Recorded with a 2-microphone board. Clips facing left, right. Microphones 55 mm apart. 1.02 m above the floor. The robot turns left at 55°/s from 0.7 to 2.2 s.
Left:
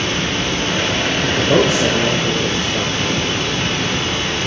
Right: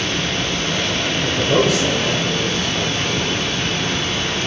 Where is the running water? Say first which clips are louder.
Left 2 dB; 135° left, 1.7 m; by 4.5 s 50° left, 1.7 m.